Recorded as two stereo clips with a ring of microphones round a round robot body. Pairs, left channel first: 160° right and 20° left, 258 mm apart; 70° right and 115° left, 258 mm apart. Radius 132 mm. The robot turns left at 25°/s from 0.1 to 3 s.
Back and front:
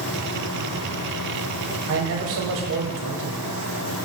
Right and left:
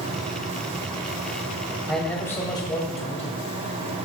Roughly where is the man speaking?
Ahead.